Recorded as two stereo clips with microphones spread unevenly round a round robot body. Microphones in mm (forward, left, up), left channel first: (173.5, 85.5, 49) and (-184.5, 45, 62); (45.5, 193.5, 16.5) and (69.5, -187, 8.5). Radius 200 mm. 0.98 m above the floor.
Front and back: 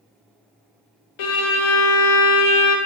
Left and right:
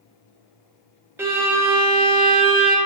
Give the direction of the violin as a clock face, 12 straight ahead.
12 o'clock.